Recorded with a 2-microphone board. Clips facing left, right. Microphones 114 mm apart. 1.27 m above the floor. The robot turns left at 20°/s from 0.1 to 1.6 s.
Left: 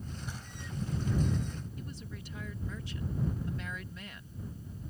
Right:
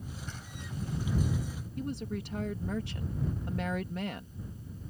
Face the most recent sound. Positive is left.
turn(degrees=-65)  # may be behind; listen again after turning